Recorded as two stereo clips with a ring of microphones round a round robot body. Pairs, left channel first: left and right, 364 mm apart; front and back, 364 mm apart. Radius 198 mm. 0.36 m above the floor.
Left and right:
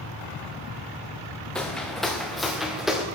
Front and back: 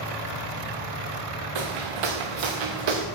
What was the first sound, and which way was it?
Footsteps, 175° left.